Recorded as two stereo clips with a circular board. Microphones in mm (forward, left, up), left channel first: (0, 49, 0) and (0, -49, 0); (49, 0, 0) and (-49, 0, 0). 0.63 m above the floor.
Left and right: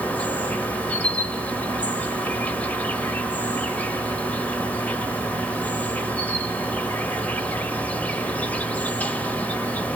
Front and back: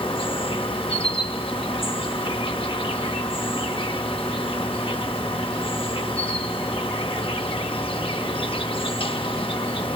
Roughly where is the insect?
Ahead.